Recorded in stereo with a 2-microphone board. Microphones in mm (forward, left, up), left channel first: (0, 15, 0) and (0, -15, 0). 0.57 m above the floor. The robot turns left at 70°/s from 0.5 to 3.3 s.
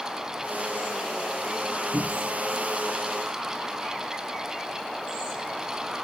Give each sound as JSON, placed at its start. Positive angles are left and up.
{"t": 1.9, "sound": "a cupboard door", "side_deg": 70, "distance_m": 2.0}